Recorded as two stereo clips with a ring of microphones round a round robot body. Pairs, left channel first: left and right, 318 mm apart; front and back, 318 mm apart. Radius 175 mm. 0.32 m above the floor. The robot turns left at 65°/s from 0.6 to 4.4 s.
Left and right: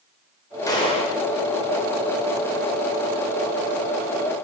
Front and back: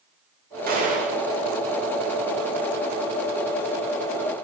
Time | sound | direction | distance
0.7 | a gunshot | 160° left | 1.1 m